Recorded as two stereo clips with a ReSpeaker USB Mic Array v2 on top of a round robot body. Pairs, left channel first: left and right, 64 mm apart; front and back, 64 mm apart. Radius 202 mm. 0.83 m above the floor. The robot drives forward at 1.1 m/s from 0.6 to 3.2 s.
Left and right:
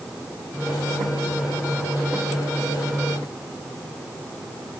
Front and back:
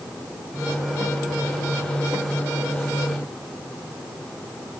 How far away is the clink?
I don't hear a clink.